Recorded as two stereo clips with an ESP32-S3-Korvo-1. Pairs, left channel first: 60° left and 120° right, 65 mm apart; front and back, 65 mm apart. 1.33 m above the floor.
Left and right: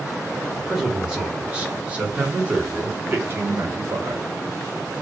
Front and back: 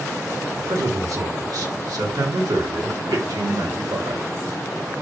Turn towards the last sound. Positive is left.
turn(degrees=-165)